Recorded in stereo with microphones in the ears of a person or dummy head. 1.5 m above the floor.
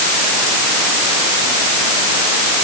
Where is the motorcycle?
I don't hear a motorcycle.